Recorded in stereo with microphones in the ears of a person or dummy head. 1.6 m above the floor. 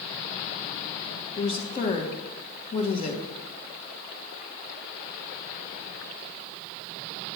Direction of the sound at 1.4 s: 35° left (ahead or behind).